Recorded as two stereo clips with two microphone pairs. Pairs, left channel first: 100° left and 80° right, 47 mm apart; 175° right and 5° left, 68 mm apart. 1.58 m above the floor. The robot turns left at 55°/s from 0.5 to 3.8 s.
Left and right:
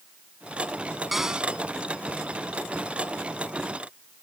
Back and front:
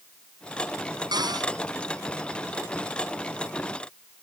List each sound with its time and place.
1.1 s a cupboard door: 5° left; by 1.5 s 15° right